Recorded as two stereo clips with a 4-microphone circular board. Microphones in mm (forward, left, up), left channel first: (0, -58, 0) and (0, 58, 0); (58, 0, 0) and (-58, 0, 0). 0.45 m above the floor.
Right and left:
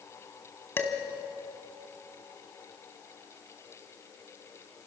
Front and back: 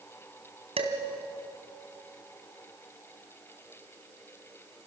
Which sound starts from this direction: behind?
Dishes clattering, at 0.8 s.